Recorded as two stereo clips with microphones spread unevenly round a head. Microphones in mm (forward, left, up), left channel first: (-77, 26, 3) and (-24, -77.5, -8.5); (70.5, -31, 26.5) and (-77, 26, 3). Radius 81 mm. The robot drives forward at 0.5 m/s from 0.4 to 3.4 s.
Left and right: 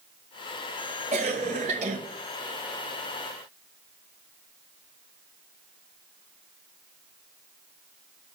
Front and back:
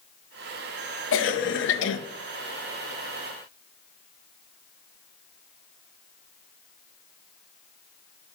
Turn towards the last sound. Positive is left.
turn(degrees=-105)